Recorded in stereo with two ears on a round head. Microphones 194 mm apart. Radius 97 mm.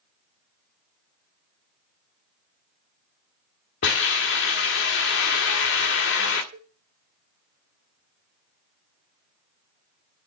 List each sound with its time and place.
3.8 s a hiss: 55° left (ahead or behind), 2 m
6.5 s a cowbell: 45° right (ahead or behind), 1.8 m